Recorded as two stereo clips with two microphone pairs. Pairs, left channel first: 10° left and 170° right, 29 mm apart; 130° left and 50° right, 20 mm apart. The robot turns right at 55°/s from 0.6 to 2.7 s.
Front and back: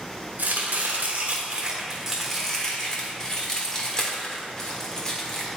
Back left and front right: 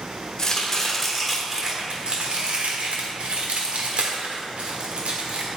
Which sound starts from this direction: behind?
Chopping, at 0.4 s.